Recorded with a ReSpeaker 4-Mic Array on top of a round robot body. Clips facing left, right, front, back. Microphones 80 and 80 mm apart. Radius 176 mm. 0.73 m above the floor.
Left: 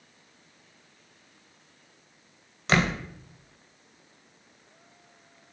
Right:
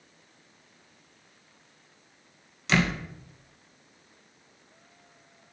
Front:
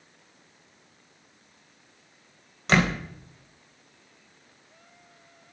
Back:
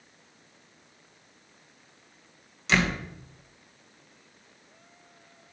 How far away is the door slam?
About 3 m.